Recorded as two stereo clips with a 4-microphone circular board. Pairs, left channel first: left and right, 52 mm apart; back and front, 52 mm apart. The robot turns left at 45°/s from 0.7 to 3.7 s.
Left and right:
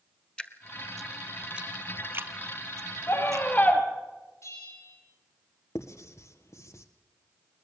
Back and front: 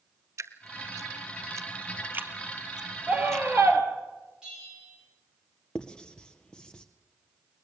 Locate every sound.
0.4 s dripping: 20° left, 0.9 m; by 3.5 s 105° right, 0.9 m
3.1 s a scream: 60° left, 3 m; by 3.8 s 30° left, 3 m
4.4 s a bell: 75° left, 6 m
5.8 s writing: 110° left, 1.4 m